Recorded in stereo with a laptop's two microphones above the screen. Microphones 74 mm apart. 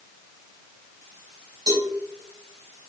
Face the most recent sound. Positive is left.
turn(degrees=-75)  # may be behind; listen again after turning